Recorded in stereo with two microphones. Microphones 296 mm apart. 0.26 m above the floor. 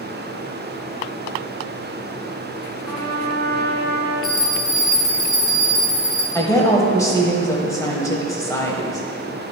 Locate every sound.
2.8 s a trumpet: 75° left (ahead or behind), 3 m
4.2 s a bell: 85° left, 2.5 m
6.3 s a woman speaking: 10° left (ahead or behind), 1.0 m